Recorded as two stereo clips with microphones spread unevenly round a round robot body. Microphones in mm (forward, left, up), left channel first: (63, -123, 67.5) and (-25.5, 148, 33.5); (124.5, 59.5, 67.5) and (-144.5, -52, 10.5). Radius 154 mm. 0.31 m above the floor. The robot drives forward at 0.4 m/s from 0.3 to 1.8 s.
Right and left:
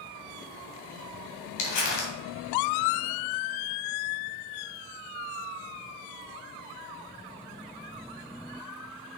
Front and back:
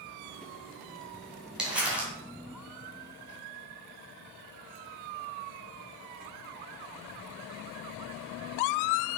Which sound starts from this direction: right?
Crumpling, at 1.6 s.